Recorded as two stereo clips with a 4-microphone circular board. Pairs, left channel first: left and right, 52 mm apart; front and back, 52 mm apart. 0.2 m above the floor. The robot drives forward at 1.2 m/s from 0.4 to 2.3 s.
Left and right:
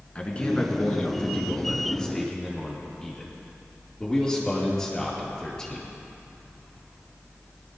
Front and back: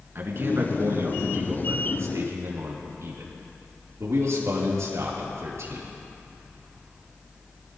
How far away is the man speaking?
About 2.5 m.